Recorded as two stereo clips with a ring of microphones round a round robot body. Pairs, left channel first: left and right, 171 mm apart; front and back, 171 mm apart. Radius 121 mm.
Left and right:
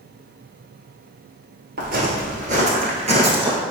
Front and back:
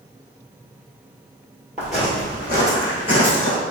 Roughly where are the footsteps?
Right.